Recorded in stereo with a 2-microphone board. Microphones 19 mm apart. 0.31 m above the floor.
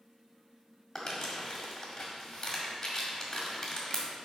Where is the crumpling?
25° left (ahead or behind), 1.8 m.